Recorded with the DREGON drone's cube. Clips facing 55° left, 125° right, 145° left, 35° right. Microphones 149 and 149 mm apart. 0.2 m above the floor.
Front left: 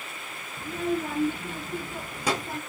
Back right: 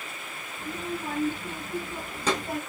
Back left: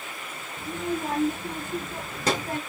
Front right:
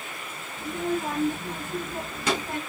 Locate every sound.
0.6 s a child speaking: 75° left, 1.9 m; by 2.6 s 165° left, 0.7 m